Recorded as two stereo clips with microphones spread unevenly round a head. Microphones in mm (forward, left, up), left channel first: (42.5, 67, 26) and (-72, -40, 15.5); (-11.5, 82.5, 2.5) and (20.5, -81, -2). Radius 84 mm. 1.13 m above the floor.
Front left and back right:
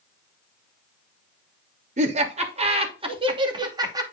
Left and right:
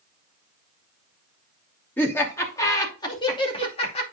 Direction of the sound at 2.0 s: Straight behind.